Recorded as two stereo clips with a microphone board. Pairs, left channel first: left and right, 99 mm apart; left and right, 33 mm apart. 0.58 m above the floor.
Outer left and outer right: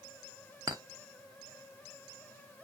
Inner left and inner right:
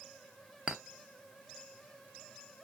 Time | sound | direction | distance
0.7 | a clink | 40° right (ahead or behind) | 0.7 m